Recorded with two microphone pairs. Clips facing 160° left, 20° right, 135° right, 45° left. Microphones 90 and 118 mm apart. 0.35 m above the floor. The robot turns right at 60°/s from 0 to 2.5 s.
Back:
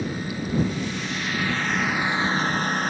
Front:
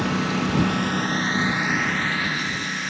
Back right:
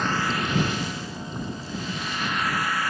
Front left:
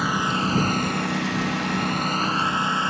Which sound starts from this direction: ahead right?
A lawn mower, at 0.0 s.